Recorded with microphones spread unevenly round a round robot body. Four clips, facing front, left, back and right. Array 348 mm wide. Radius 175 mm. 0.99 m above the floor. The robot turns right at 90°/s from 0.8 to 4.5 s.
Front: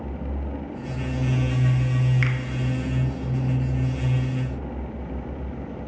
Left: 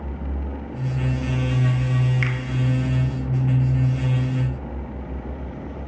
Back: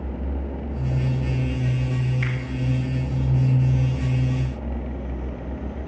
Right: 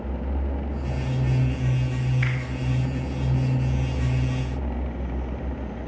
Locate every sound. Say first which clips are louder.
2.2 s a finger snap: left 2 dB, front 2 dB; 15° left, 1.2 m; by 2.4 s 30° left, 1.2 m